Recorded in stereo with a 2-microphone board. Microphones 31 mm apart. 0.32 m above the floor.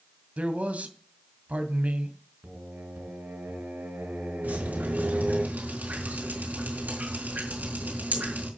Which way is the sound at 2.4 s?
70° right (ahead or behind).